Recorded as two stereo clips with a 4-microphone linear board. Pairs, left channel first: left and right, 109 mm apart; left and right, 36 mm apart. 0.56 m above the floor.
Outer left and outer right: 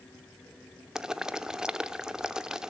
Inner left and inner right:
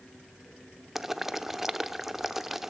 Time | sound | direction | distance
0.9 | boiling | 5° right (ahead or behind) | 0.7 m